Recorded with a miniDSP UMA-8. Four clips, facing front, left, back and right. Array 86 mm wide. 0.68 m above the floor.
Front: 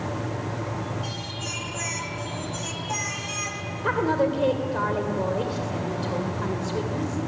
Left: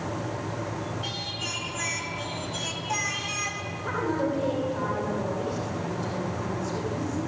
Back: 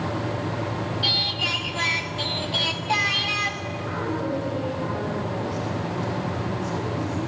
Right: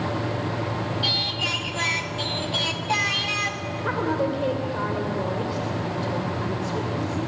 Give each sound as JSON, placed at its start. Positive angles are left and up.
{"t": 1.0, "sound": "singing", "azimuth_deg": -140, "distance_m": 1.3}
{"t": 3.8, "sound": "a woman speaking", "azimuth_deg": -25, "distance_m": 2.5}